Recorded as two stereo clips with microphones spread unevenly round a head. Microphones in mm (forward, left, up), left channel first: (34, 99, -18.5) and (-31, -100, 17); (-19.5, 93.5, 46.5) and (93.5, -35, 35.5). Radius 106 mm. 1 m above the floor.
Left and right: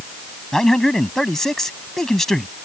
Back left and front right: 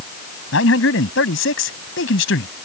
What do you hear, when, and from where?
0.5 s a man speaking: 160° left